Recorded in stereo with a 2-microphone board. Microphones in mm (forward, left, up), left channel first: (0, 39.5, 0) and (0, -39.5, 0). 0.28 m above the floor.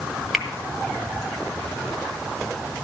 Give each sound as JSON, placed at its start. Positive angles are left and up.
{"t": 0.3, "sound": "a finger snap", "side_deg": -5, "distance_m": 1.7}